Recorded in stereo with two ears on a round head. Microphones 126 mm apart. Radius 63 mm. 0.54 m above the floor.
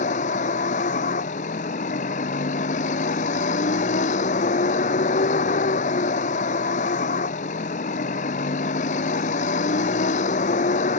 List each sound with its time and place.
0.0 s a vehicle: 55° left (ahead or behind)